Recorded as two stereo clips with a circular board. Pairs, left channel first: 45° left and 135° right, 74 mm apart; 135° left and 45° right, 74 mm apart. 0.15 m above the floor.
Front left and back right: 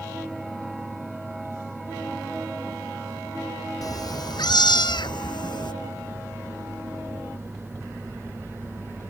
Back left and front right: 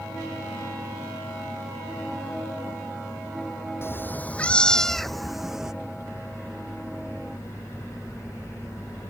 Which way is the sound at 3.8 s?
80° left.